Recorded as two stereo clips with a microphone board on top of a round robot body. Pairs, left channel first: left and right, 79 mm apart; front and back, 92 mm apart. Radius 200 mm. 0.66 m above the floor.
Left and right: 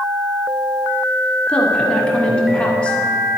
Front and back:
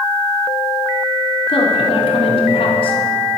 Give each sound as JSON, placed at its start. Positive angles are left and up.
{"t": 1.5, "sound": "a woman speaking", "azimuth_deg": 15, "distance_m": 2.5}